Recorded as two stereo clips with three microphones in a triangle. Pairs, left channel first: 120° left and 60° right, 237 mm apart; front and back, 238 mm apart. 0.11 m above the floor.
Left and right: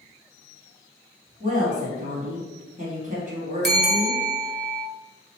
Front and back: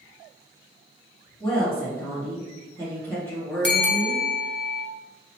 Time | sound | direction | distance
1.4 | a woman speaking | 75° right | 1.7 m
3.6 | a bell | 25° right | 0.6 m